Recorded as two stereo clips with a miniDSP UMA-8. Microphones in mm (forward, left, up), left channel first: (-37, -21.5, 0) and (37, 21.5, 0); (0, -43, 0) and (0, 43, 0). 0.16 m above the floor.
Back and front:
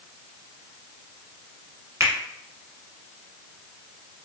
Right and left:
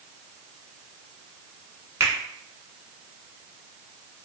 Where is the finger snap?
55° left, 1.0 m.